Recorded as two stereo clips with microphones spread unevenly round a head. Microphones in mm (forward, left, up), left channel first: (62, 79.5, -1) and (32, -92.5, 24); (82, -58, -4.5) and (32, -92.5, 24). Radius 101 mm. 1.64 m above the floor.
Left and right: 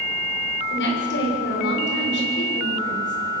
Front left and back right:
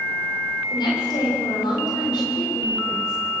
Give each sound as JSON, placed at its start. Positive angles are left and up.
{"t": 0.7, "sound": "a woman speaking", "azimuth_deg": 65, "distance_m": 6.0}